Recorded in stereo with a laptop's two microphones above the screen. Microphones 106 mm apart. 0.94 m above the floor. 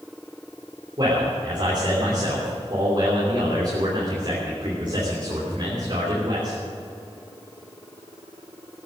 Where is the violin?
No violin in this recording.